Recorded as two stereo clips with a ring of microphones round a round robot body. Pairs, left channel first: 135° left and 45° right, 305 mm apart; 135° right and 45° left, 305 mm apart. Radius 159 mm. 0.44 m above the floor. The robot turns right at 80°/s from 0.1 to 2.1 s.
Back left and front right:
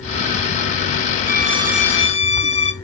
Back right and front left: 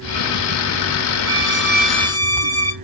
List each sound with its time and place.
1.2 s a violin: straight ahead, 2.5 m; by 2.7 s 70° left, 2.5 m